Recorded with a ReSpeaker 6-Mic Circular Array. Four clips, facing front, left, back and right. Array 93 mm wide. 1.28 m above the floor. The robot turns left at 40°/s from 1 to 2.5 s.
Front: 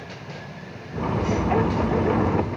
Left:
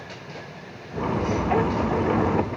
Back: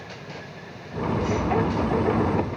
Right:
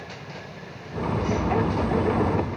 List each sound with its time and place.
Only background noise.